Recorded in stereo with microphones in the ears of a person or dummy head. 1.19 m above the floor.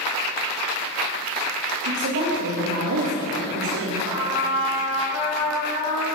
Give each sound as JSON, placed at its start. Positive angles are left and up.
{"t": 1.8, "sound": "a woman speaking", "side_deg": -50, "distance_m": 0.9}
{"t": 4.0, "sound": "a trumpet", "side_deg": 60, "distance_m": 1.5}